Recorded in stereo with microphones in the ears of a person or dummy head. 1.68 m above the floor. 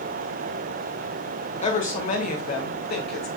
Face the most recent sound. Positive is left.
turn(degrees=70)  # may be behind; listen again after turning